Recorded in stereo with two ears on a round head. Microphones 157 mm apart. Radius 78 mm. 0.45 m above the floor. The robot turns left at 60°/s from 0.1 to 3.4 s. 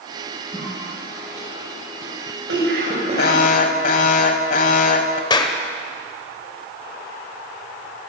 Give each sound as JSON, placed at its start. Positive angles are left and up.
{"t": 0.5, "sound": "a cough", "side_deg": 15, "distance_m": 7.5}
{"t": 3.2, "sound": "an alarm", "side_deg": 60, "distance_m": 1.6}
{"t": 5.3, "sound": "a clap", "side_deg": 25, "distance_m": 1.7}